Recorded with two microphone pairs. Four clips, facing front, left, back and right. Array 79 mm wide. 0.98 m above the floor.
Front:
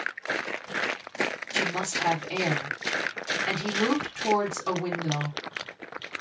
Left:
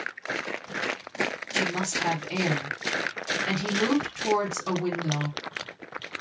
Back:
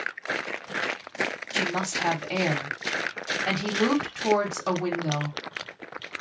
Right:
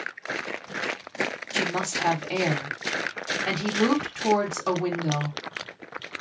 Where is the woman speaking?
125° right, 1.2 m.